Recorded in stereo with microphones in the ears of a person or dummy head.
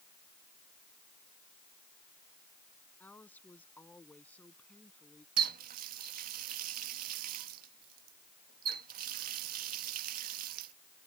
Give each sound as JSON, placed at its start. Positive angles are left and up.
{"t": 3.0, "sound": "a woman speaking", "side_deg": 10}
{"t": 5.4, "sound": "a running tap", "side_deg": -45}